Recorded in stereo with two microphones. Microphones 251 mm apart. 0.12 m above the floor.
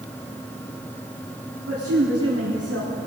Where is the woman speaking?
65° right (ahead or behind), 5.5 m; by 3.0 s 70° right (ahead or behind), 5.5 m.